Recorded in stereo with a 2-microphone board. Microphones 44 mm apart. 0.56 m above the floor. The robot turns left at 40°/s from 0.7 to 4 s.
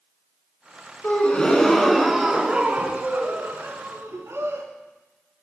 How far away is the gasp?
About 1.3 m.